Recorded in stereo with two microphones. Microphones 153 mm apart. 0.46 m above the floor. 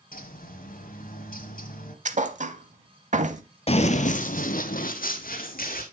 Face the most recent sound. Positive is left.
turn(degrees=80)